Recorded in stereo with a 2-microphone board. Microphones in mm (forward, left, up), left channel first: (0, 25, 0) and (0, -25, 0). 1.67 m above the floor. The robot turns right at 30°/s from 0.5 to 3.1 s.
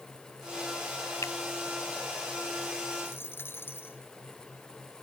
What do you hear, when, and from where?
1.2 s a finger snap: 80° left
3.0 s a dropped coin: 50° left (ahead or behind)